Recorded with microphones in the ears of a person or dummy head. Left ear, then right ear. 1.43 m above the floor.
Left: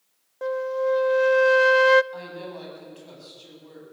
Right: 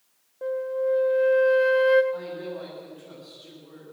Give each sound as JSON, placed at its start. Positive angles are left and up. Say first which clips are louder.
{"t": 0.4, "sound": "a flute", "louder": "left 1 dB", "side_deg": 45, "distance_m": 0.5}
{"t": 2.1, "sound": "a woman speaking", "louder": "right 3 dB", "side_deg": 80, "distance_m": 9.5}